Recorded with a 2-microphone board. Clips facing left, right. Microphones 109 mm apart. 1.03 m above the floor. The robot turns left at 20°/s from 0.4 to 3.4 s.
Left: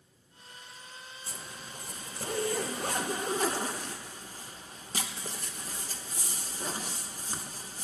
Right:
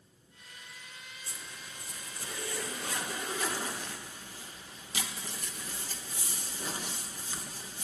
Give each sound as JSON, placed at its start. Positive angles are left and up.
{"t": 1.3, "sound": "a zipper", "azimuth_deg": 95, "distance_m": 1.0}